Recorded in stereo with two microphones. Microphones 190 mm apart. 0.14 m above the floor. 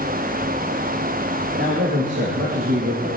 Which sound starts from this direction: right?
A man speaking, at 1.6 s.